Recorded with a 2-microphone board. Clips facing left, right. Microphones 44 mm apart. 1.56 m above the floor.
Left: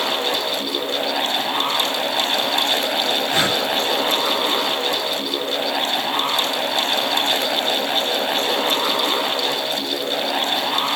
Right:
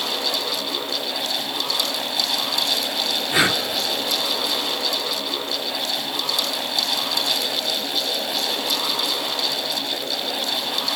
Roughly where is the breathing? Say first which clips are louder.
Right 3 dB; centre.